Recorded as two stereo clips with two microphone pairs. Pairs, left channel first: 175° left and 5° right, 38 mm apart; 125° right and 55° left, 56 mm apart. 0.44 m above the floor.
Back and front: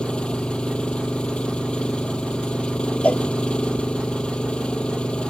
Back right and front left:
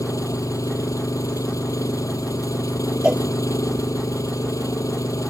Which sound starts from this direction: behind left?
A cowbell, at 3.0 s.